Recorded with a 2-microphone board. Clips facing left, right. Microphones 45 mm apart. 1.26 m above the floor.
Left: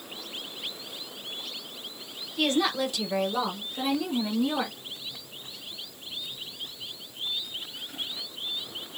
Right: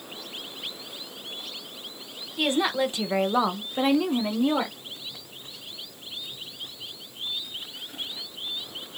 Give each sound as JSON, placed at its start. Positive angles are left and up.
{"t": 2.4, "sound": "a woman speaking", "side_deg": -15, "distance_m": 0.9}